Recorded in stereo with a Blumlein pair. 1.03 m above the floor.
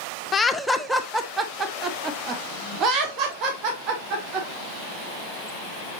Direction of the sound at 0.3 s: 15° left.